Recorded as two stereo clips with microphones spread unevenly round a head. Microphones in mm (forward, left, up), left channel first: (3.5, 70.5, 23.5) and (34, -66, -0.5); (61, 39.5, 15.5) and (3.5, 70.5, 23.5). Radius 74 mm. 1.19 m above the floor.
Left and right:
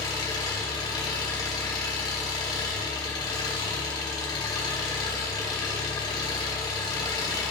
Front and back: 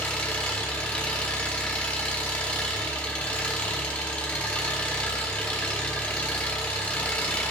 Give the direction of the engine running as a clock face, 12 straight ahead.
11 o'clock.